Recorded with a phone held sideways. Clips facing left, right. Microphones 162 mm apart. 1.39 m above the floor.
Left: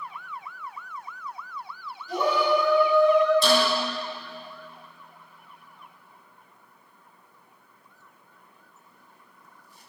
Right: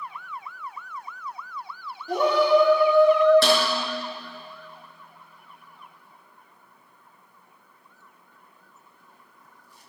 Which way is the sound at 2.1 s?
60° right (ahead or behind).